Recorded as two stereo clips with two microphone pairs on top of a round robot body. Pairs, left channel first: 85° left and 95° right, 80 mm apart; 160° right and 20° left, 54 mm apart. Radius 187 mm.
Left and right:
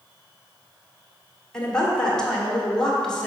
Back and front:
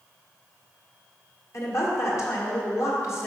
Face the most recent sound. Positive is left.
turn(degrees=165)